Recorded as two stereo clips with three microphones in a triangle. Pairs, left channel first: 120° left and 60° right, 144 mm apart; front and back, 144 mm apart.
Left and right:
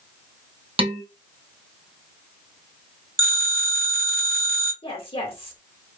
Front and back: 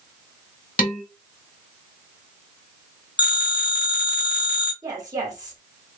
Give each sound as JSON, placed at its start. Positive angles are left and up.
{"t": 0.8, "sound": "dishes clattering", "azimuth_deg": -10, "distance_m": 1.0}
{"t": 3.2, "sound": "a phone ringing", "azimuth_deg": -60, "distance_m": 1.6}
{"t": 4.8, "sound": "a woman speaking", "azimuth_deg": 130, "distance_m": 1.4}